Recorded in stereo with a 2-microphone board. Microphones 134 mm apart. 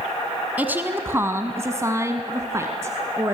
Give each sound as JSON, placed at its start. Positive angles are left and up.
{"t": 0.6, "sound": "a woman speaking", "side_deg": -15, "distance_m": 1.2}